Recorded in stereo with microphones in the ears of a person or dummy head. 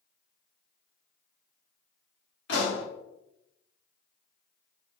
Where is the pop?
55° left (ahead or behind), 1.7 m.